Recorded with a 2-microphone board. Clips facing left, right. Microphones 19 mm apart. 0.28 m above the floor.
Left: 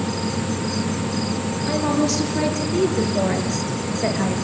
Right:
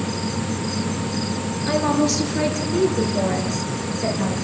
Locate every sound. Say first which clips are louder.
1.7 s a woman speaking: right 1 dB; 20° right (ahead or behind), 4 m; by 4.3 s 30° left (ahead or behind), 4.5 m